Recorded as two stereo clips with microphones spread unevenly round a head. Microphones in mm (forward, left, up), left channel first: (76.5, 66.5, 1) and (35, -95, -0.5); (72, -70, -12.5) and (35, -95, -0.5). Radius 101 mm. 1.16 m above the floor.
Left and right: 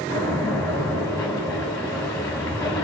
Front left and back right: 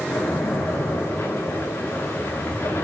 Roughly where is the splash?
Ahead.